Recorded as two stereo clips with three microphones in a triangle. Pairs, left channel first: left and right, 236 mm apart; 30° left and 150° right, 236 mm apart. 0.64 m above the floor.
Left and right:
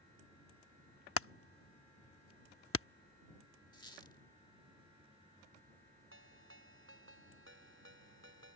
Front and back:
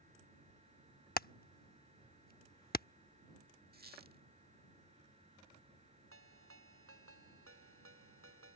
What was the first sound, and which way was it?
Hammering, 75° left.